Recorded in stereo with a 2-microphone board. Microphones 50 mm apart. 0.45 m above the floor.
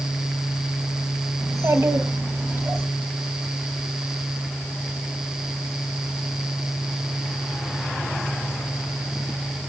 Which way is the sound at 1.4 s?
70° right (ahead or behind).